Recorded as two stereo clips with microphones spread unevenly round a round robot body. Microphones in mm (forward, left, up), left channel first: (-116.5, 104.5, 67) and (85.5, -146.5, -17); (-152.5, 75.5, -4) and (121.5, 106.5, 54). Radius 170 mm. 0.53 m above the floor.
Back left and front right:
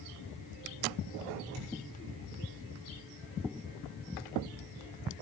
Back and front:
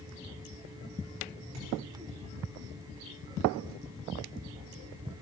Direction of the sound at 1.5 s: 40° right.